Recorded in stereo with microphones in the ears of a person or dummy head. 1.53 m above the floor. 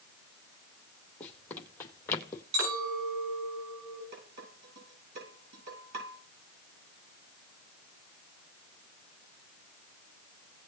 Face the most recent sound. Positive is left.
turn(degrees=-60)  # may be behind; listen again after turning